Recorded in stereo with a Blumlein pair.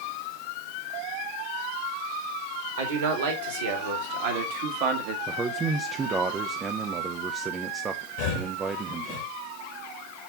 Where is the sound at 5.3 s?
20° right, 0.7 m.